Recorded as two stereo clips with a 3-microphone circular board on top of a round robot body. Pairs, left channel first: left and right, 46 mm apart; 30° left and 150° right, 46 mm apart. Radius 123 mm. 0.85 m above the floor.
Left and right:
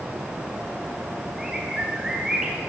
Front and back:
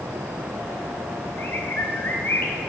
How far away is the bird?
About 1.7 m.